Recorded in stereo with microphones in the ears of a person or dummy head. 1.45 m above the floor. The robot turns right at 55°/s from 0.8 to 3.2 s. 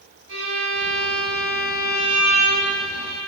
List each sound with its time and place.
0.3 s a violin: 80° right, 1.1 m; by 3.2 s 50° left, 1.1 m